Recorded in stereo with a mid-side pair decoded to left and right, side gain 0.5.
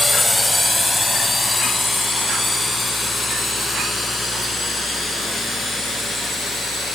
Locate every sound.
0.0 s a drone: 10° left; by 7.0 s 15° left